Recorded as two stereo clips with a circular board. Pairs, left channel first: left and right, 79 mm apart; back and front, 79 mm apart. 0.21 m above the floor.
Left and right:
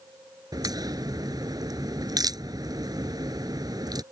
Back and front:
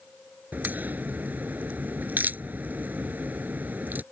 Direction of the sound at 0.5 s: 65° right.